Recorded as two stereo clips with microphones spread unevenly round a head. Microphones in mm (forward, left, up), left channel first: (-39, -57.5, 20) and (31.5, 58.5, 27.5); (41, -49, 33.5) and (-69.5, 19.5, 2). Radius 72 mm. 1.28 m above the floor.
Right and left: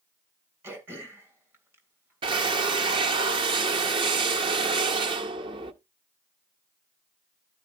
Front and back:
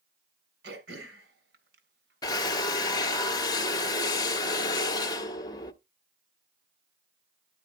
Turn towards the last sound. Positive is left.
turn(degrees=10)